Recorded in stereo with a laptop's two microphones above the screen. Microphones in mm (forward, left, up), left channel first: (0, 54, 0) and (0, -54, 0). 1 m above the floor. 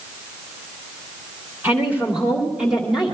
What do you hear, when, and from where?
1.6 s a woman speaking: 20° right (ahead or behind), 2.5 m; by 3.1 s centre (ahead or behind), 2.5 m